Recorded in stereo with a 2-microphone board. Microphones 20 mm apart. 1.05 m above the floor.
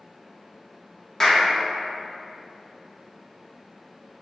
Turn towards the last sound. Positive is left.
turn(degrees=25)  # may be behind; listen again after turning